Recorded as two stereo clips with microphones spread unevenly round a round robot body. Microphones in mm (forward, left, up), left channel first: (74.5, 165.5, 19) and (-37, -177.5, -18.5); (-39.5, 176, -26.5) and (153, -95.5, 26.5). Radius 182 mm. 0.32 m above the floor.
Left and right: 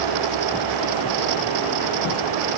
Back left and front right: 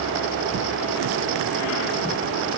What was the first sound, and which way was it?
Only background noise.